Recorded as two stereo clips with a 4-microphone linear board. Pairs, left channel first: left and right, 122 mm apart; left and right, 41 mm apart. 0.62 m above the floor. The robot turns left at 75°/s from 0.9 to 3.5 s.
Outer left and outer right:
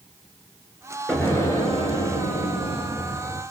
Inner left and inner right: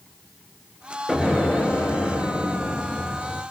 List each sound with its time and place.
1.1 s an explosion: 175° left, 4.5 m; by 3.4 s straight ahead, 4.5 m